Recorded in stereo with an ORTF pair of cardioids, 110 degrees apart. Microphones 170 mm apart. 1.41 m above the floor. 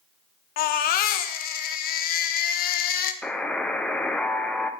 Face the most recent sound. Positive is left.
turn(degrees=5)